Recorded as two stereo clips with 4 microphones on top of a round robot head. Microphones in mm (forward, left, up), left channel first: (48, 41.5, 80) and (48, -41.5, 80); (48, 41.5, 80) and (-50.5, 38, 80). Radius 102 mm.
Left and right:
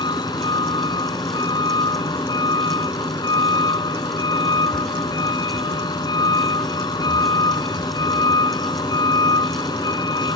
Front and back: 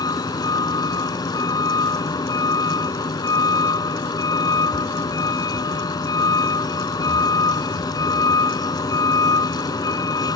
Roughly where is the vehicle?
Ahead left.